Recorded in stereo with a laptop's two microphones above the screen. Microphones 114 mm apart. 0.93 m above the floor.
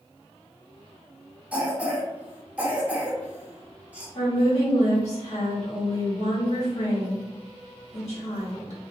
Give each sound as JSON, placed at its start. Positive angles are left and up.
{"t": 1.5, "sound": "a cough", "side_deg": -10, "distance_m": 0.9}
{"t": 4.2, "sound": "a woman speaking", "side_deg": 70, "distance_m": 1.5}